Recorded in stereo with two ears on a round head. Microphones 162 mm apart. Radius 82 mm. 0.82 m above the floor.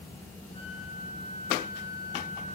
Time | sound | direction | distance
0.5 | a flute | 45° right (ahead or behind) | 4 m